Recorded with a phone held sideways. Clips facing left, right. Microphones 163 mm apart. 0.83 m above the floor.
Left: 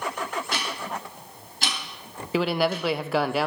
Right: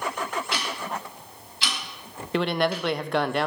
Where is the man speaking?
Centre (ahead or behind), 0.5 m.